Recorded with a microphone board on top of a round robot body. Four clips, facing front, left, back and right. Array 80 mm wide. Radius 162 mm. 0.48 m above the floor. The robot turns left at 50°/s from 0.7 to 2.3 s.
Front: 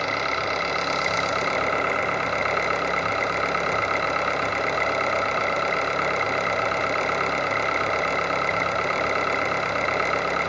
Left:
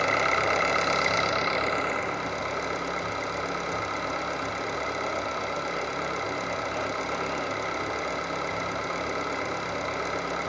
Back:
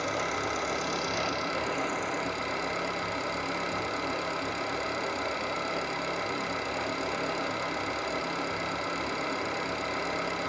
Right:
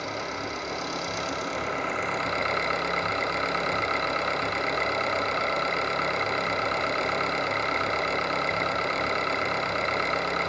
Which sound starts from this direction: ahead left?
An engine running, at 0.0 s.